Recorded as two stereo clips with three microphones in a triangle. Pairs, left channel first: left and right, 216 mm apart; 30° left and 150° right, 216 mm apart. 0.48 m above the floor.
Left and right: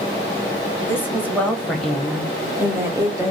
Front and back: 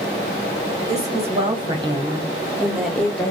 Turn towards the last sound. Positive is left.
turn(degrees=-40)